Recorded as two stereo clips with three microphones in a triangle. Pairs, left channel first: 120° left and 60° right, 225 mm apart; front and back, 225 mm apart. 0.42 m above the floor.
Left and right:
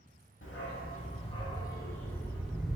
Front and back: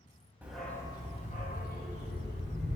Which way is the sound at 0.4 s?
95° left.